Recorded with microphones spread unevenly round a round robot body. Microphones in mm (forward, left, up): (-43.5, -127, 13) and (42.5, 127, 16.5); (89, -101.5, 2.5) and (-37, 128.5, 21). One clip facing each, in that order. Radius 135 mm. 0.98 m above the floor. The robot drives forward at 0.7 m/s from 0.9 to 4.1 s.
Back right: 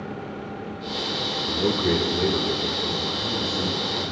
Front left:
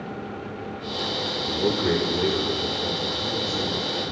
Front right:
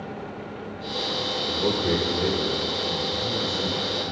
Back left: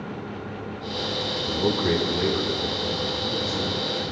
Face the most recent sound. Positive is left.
turn(degrees=180)